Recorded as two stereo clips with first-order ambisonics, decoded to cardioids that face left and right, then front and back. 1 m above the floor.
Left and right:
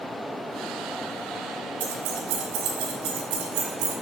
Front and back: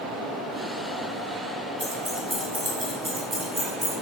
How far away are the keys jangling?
About 3.5 m.